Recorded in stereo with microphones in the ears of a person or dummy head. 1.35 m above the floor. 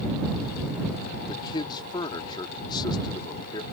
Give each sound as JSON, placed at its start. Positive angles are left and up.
{"t": 1.3, "sound": "a man speaking", "side_deg": 25}